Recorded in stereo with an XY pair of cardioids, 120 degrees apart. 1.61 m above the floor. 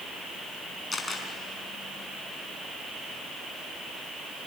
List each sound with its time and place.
0.9 s a camera shutter: 20° left, 5 m